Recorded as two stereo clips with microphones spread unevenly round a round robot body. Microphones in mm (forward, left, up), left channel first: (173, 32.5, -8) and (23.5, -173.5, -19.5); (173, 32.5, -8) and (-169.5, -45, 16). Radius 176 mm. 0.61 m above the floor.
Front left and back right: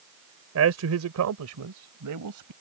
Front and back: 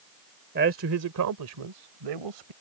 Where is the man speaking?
105° right; by 2.5 s 155° right.